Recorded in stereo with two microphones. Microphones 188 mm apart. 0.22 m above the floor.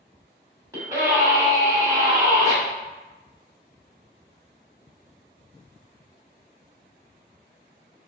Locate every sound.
0.7 s a scream: 15° right (ahead or behind), 1.6 m